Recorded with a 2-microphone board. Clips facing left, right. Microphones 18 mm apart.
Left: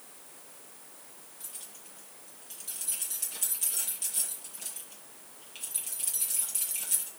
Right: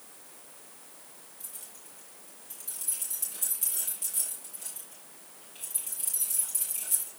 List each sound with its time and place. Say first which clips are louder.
1.4 s keys jangling: left 2 dB; 30° left (ahead or behind), 7 m